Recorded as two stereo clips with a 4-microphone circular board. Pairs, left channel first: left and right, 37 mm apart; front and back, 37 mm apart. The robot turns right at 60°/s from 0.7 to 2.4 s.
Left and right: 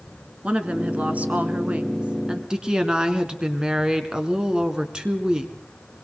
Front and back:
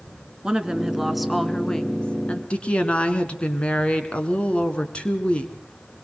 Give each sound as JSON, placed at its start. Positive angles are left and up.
{"t": 0.4, "sound": "a woman speaking", "azimuth_deg": -125, "distance_m": 1.6}
{"t": 2.5, "sound": "a woman speaking", "azimuth_deg": -35, "distance_m": 2.0}